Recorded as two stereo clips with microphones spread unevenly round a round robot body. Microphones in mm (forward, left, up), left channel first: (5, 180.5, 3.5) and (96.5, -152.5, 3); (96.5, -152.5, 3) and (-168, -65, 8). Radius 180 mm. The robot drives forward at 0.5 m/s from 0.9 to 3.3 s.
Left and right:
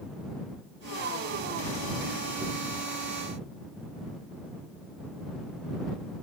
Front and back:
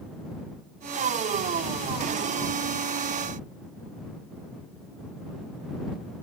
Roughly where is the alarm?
I don't hear an alarm.